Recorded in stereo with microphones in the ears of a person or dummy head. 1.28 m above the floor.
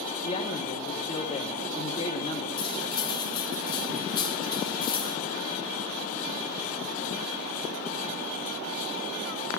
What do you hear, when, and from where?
0.2 s a man speaking: 35° left (ahead or behind), 2.0 m
2.6 s cutlery clinking: 30° left (ahead or behind), 1.3 m